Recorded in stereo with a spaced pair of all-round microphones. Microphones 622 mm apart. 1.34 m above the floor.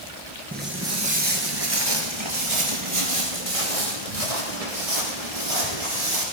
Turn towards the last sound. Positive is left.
turn(degrees=-70)  # may be behind; listen again after turning